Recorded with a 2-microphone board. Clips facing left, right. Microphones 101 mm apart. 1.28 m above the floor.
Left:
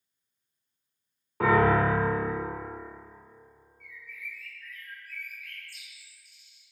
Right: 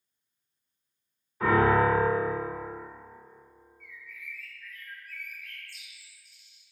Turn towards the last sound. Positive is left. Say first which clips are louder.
# left 2 dB
turn(degrees=5)  # may be behind; listen again after turning